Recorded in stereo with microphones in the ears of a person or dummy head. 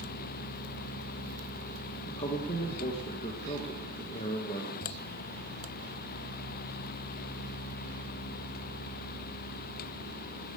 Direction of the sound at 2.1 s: 35° left (ahead or behind).